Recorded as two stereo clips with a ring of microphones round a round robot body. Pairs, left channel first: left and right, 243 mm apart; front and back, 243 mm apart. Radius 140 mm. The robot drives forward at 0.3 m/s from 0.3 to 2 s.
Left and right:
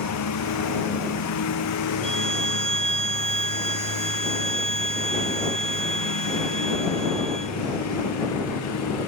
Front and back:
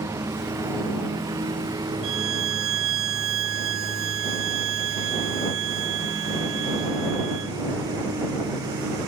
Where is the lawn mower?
100° left.